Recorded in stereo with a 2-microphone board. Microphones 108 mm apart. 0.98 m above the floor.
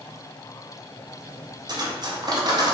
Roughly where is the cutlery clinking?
Right.